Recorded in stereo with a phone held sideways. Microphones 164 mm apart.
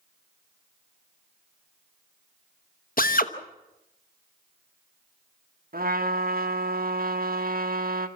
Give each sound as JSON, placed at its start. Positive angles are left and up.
{"t": 3.0, "sound": "a drill", "side_deg": 60, "distance_m": 1.0}
{"t": 5.7, "sound": "a trumpet", "side_deg": -65, "distance_m": 1.5}